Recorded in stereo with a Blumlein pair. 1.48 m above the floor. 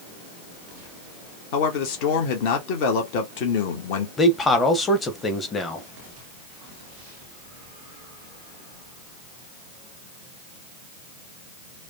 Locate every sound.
1.5 s a man speaking: 45° left, 1.3 m
4.2 s a man speaking: 15° left, 1.2 m